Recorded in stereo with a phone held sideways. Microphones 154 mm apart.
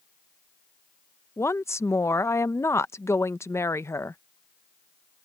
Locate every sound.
1.4 s a woman speaking: 15° left (ahead or behind)